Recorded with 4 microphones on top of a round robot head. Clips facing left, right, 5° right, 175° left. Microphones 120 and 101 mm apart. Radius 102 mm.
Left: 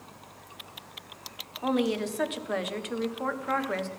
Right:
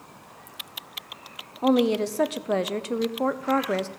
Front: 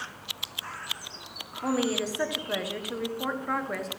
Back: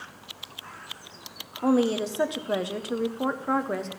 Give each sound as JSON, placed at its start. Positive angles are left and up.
{"t": 1.6, "sound": "a woman speaking", "azimuth_deg": -130, "distance_m": 0.8}